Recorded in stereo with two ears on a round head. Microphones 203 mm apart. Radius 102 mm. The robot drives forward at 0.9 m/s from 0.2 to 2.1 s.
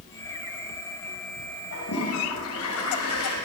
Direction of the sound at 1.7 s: 80° left.